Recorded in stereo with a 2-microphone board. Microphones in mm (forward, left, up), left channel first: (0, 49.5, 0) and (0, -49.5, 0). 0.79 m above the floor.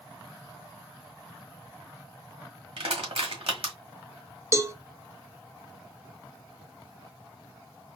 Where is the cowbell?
30° right (ahead or behind), 0.6 m.